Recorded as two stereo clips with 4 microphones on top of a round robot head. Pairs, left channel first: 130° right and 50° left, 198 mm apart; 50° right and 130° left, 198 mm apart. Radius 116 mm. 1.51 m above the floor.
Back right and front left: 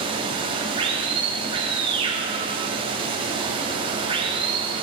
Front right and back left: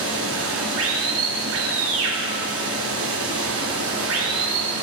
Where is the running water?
115° left, 3 m.